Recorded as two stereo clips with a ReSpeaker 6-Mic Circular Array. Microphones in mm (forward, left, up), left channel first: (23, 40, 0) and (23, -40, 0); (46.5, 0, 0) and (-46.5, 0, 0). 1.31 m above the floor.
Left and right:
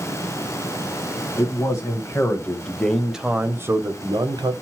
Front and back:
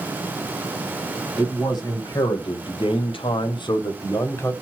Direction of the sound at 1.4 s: 45° left.